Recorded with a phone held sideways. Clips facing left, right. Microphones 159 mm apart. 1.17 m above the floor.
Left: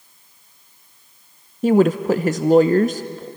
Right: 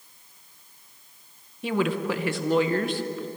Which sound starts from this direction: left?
A woman speaking, at 1.6 s.